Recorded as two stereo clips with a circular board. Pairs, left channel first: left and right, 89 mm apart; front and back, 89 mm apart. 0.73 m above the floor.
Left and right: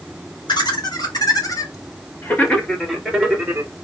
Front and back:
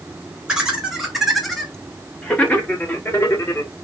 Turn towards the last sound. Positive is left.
turn(degrees=-30)